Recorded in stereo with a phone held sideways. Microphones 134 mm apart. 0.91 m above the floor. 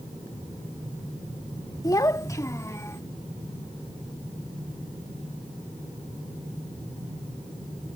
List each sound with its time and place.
1.8 s a child speaking: 25° left (ahead or behind); by 3.0 s 20° left (ahead or behind)